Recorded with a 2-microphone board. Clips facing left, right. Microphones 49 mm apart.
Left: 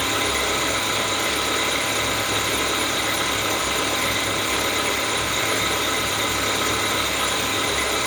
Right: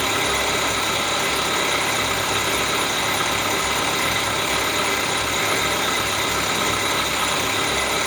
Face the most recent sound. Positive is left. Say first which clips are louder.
# right 1 dB
turn(degrees=-65)  # may be behind; listen again after turning